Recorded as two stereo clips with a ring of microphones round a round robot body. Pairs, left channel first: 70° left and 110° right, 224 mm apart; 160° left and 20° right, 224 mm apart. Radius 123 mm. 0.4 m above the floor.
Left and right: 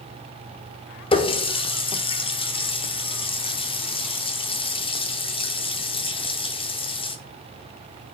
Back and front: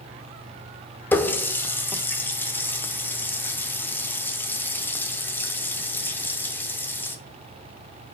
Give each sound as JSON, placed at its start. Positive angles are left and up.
{"t": 1.1, "sound": "a running tap", "azimuth_deg": 90, "distance_m": 0.6}